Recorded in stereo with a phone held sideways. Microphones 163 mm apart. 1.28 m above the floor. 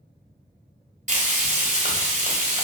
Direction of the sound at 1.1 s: 45° right (ahead or behind).